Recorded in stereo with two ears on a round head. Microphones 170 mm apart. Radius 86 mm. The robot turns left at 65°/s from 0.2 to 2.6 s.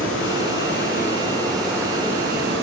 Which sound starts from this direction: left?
Running water, at 0.0 s.